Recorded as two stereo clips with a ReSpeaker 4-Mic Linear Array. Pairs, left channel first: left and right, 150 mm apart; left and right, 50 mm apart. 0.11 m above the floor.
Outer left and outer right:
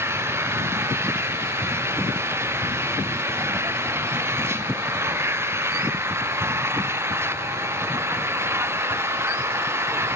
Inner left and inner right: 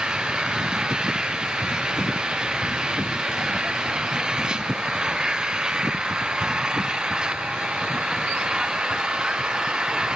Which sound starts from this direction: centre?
An engine running, at 0.0 s.